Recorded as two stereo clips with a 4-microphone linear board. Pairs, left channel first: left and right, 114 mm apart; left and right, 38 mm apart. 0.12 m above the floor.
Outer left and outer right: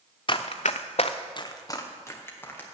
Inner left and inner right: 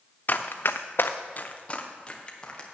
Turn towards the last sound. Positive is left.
turn(degrees=15)  # may be behind; listen again after turning